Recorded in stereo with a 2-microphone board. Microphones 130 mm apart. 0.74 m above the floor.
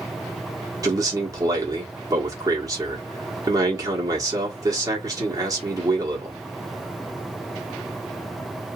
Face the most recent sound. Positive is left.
turn(degrees=-30)  # may be behind; listen again after turning